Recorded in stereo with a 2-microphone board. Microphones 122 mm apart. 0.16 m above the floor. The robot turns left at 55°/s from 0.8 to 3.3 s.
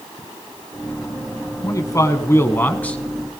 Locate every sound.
1.6 s a man speaking: 25° left (ahead or behind), 1.1 m; by 3.0 s 10° left (ahead or behind), 1.1 m